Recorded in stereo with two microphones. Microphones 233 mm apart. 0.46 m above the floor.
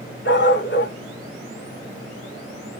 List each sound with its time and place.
0.2 s a dog barking: 50° left (ahead or behind), 1.2 m